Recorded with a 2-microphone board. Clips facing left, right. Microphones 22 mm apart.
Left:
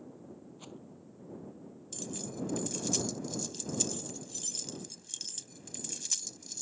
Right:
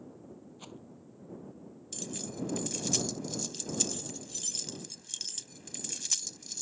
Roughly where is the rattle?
Centre.